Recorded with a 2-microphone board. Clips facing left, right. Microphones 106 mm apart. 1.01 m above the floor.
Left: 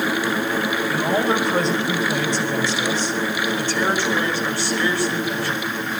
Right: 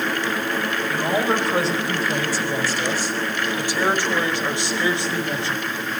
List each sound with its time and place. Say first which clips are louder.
0.9 s a man speaking: left 1 dB; centre (ahead or behind), 5.5 m; by 5.6 s 25° right (ahead or behind), 5.5 m